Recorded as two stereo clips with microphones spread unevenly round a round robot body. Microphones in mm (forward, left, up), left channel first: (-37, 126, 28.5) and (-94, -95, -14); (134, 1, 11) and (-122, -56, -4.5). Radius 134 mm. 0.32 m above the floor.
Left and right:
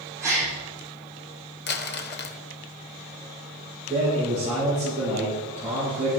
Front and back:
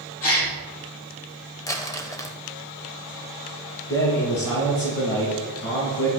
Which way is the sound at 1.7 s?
85° left.